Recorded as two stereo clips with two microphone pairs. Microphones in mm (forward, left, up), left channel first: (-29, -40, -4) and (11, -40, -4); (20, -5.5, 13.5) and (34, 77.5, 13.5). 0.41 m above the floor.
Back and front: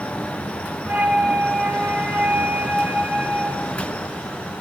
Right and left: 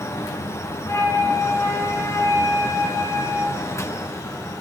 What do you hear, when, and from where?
0.9 s a flute: 45° right, 0.9 m